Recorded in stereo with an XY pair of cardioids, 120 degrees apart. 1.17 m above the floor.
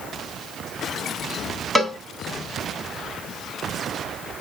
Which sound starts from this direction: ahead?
A cowbell, at 1.8 s.